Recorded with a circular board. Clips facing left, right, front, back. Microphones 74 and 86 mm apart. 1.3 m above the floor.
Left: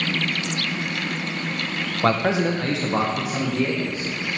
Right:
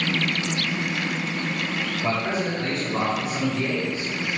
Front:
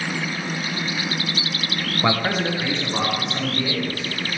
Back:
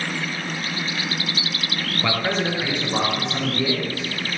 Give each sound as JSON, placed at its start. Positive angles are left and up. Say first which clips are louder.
{"t": 2.0, "sound": "a man speaking", "louder": "left 7 dB, front 2 dB", "azimuth_deg": 60, "distance_m": 0.7}